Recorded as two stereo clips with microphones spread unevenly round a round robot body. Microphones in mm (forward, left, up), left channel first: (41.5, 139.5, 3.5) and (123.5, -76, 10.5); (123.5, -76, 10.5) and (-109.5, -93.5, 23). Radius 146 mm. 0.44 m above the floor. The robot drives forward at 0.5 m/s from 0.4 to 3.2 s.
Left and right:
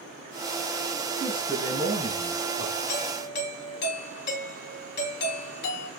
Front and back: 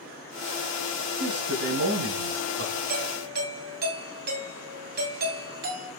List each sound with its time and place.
1.2 s a man speaking: 135° right, 3.5 m; by 2.7 s 140° right, 4 m
2.9 s a doorbell: 140° left, 2.5 m